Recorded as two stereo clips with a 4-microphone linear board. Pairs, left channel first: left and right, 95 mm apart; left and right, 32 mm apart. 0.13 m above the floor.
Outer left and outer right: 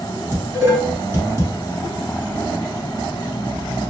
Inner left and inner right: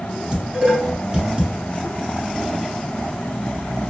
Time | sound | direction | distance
0.3 | dishes clattering | 30° right (ahead or behind) | 1.0 m